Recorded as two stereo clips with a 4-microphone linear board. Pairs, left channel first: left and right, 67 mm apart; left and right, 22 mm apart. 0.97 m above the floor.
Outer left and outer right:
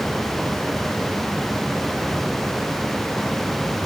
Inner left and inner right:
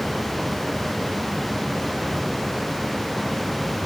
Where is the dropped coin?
No dropped coin in this recording.